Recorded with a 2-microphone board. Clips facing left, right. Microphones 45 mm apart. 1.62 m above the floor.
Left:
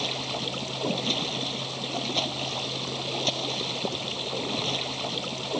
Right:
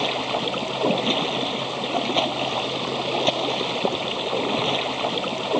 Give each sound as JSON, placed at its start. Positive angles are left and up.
{"t": 0.0, "sound": "running water", "side_deg": -30}